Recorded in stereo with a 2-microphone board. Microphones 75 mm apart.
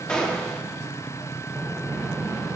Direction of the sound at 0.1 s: 10° left (ahead or behind).